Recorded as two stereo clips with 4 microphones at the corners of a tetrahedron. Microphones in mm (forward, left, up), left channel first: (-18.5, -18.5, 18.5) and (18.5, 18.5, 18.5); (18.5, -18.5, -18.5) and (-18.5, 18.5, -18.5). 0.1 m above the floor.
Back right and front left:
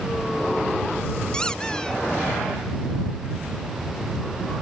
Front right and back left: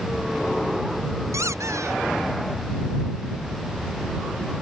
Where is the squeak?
150° left.